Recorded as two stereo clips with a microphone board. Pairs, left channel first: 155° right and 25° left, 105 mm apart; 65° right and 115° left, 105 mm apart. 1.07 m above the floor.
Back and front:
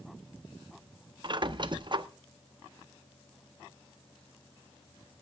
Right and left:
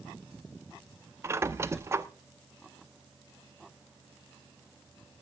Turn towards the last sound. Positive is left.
turn(degrees=55)